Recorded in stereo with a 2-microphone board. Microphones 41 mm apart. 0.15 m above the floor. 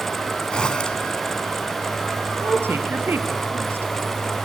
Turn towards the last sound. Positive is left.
turn(degrees=-65)  # may be behind; listen again after turning